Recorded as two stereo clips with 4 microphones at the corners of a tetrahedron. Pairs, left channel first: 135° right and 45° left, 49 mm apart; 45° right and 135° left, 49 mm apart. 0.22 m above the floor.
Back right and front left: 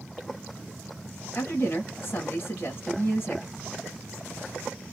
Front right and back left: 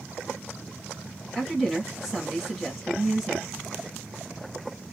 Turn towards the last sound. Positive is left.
turn(degrees=-140)